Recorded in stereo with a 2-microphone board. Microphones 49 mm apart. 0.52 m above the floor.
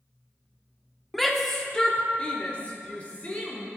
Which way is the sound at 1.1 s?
Centre (ahead or behind).